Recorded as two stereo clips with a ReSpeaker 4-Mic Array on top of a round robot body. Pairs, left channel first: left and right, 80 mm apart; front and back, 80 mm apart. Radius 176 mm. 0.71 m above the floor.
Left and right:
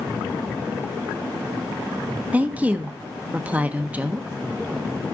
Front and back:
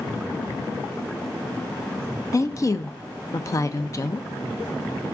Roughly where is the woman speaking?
Ahead right.